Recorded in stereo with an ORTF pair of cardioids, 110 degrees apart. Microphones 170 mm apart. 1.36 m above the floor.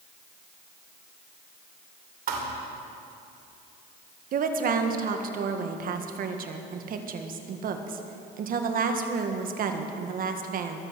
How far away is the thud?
About 2.5 m.